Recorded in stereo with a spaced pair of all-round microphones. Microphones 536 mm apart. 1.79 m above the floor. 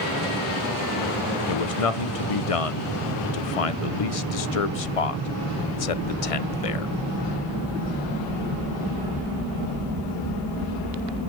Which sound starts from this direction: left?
A man speaking, at 1.5 s.